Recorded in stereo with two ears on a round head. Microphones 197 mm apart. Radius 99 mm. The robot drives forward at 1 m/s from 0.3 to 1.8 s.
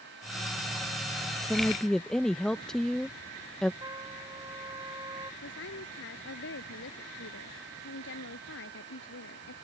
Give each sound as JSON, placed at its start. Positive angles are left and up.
{"t": 1.4, "sound": "a woman speaking", "side_deg": 0}
{"t": 3.8, "sound": "a trumpet", "side_deg": -15}
{"t": 5.4, "sound": "a woman speaking", "side_deg": 60}